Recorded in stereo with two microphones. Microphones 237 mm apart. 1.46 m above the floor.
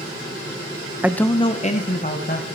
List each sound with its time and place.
1.0 s a man speaking: 10° right (ahead or behind), 0.5 m; by 2.5 s 40° left (ahead or behind), 2 m